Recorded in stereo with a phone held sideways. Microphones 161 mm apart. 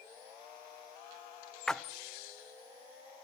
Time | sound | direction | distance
1.7 | a splash | 5° left (ahead or behind) | 0.7 m